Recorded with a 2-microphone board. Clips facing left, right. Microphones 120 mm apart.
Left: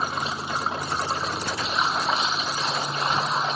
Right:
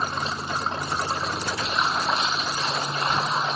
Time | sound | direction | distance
0.0 | running water | 5° left (ahead or behind) | ?